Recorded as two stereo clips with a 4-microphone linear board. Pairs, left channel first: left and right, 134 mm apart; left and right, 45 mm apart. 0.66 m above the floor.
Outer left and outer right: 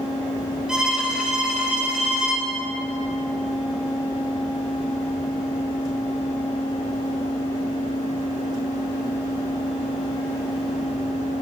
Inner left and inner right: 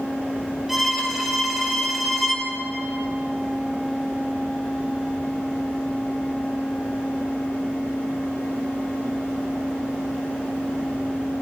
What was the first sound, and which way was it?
A violin, 5° right (ahead or behind).